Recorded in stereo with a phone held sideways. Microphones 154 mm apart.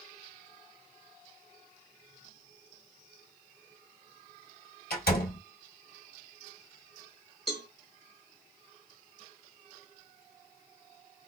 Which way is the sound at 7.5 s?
5° left (ahead or behind).